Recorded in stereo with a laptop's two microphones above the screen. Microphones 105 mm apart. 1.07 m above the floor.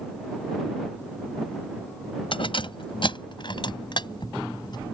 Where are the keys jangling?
55° left (ahead or behind); by 4.8 s 45° left (ahead or behind).